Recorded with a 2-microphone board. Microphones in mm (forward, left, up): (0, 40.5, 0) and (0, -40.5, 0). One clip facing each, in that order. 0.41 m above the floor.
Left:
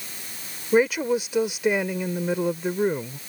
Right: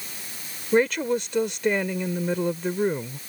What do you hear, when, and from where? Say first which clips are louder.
0.7 s a woman speaking: left 1 dB; 10° left (ahead or behind)